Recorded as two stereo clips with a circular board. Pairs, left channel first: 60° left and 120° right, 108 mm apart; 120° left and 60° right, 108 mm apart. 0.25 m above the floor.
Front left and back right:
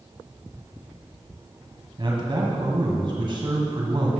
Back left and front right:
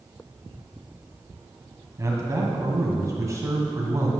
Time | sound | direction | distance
2.0 | a man speaking | 110° right | 1.5 m